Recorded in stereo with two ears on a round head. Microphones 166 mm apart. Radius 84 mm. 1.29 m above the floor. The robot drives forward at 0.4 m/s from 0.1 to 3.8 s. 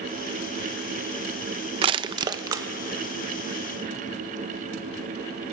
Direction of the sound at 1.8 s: 30° right (ahead or behind).